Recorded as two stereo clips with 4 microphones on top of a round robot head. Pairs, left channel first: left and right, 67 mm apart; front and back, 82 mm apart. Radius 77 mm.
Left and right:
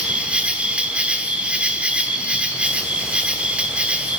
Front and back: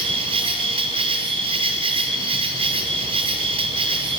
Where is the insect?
165° right, 1.7 m.